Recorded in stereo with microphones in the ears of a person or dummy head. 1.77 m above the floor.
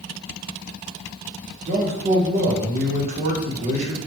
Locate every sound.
1.6 s a man speaking: 40° right (ahead or behind), 2 m